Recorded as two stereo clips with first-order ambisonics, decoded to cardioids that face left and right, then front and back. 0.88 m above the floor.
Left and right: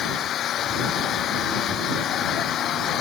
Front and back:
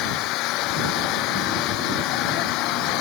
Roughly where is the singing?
I don't hear singing.